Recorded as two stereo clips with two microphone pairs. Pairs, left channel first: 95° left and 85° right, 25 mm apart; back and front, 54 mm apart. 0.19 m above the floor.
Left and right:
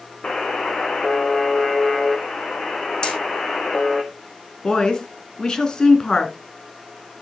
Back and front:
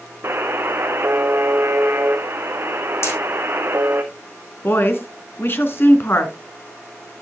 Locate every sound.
0.2 s a buzzer: 45° left, 1.5 m
3.0 s hammering: 150° left, 8 m
4.6 s a woman speaking: 150° left, 2 m